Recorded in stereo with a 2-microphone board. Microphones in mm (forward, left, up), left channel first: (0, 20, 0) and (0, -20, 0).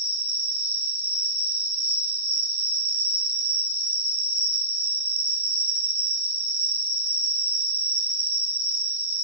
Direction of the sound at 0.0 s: 55° right (ahead or behind).